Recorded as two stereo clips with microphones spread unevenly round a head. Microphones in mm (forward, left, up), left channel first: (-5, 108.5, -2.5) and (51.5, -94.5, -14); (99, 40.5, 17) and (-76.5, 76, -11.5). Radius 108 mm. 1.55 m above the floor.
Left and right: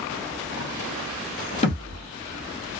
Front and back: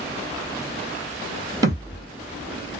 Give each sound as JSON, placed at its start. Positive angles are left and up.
{"t": 1.6, "sound": "a thud", "azimuth_deg": 100, "distance_m": 1.7}